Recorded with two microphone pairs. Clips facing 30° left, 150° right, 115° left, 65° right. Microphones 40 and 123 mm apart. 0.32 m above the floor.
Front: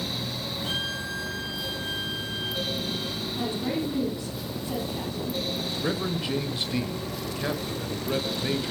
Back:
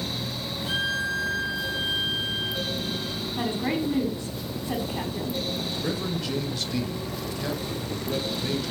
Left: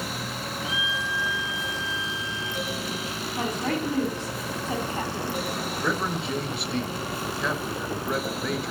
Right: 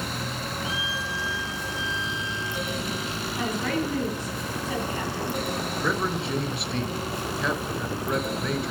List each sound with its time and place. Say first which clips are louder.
0.6 s a violin: back 6 dB, left 1 dB; 5° right, 6.5 m
3.4 s a woman speaking: back 2 dB, even; 170° left, 2.5 m
5.8 s a man speaking: front 3 dB, even; 25° left, 1.1 m